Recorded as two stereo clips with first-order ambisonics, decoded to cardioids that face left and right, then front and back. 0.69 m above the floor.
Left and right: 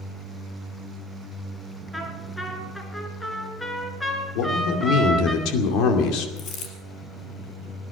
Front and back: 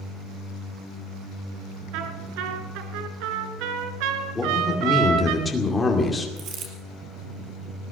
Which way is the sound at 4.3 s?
80° left.